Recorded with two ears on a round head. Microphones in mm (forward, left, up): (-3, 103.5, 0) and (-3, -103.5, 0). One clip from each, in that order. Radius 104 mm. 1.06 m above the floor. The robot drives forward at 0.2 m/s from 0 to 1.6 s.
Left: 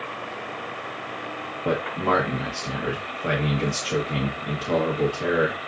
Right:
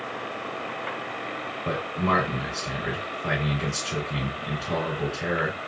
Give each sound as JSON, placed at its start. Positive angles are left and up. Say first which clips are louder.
{"t": 1.6, "sound": "a man speaking", "louder": "left 3 dB", "side_deg": 60, "distance_m": 1.5}